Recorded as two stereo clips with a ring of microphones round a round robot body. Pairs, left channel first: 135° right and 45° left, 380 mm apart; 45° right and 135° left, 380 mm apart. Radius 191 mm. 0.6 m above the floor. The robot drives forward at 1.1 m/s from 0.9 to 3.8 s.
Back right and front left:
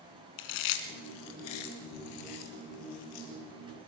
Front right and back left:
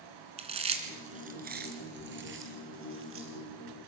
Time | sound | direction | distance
0.4 | chewing | 150° right | 1.9 m